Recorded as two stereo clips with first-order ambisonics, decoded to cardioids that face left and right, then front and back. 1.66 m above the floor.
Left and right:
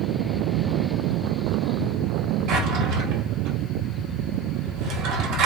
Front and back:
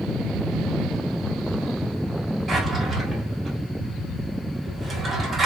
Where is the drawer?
100° right, 1.7 m.